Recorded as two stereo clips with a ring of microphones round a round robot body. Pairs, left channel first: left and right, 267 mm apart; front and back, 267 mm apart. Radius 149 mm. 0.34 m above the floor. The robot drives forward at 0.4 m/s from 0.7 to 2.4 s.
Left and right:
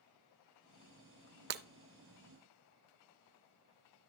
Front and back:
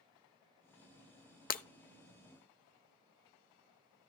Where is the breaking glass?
50° right, 0.5 m; by 1.6 s 55° right, 0.5 m.